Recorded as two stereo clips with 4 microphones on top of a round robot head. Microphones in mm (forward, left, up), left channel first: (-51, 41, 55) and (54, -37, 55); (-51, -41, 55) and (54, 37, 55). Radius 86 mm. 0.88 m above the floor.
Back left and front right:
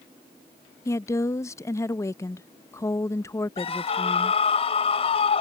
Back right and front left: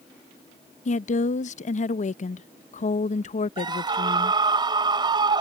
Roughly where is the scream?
Left.